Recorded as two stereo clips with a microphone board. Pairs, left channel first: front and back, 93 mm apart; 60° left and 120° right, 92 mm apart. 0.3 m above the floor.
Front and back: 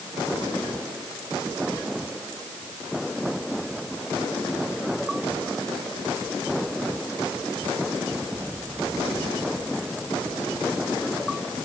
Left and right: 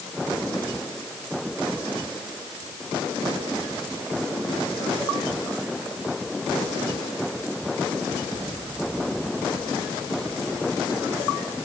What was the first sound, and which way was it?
Only background noise.